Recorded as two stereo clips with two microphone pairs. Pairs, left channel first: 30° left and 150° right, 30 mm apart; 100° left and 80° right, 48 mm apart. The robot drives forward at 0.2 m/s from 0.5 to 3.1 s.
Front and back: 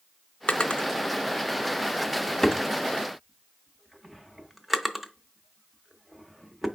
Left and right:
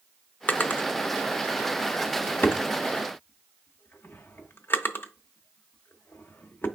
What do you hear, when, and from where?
0.5 s a drawer: 55° left, 0.6 m; by 6.7 s 125° left, 0.6 m